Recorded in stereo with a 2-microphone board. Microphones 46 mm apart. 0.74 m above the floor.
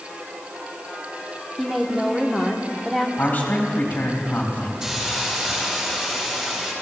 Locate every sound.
1.6 s a woman speaking: 5° right (ahead or behind), 1.3 m
3.2 s a man speaking: 40° left (ahead or behind), 4.5 m
4.8 s a hiss: 15° right (ahead or behind), 5 m